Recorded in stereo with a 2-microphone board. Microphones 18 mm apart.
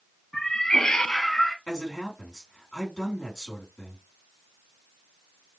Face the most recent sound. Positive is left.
turn(degrees=45)  # may be behind; listen again after turning